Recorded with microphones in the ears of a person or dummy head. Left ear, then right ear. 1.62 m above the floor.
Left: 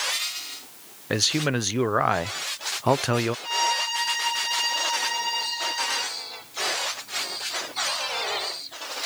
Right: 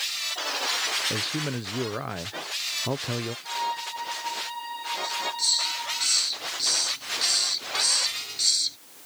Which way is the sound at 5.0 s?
40° right (ahead or behind).